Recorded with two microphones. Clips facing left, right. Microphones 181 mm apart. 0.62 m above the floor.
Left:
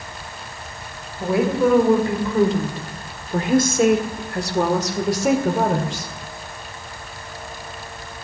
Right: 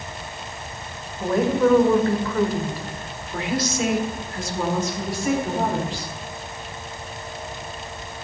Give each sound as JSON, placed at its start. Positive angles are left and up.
{"t": 1.2, "sound": "a woman speaking", "side_deg": 5, "distance_m": 2.0}